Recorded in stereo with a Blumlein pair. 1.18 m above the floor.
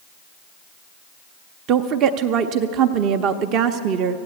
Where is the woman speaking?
35° right, 0.5 m.